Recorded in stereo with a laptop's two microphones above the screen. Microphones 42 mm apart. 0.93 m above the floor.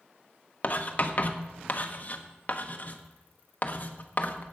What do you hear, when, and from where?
0.6 s writing: 40° left (ahead or behind), 1.1 m